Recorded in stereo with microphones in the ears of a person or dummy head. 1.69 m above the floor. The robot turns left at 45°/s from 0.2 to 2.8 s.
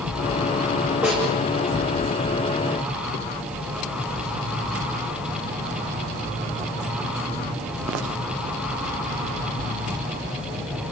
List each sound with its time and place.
1.0 s a snare drum: 5° right (ahead or behind), 8 m; by 1.2 s 5° left (ahead or behind), 8 m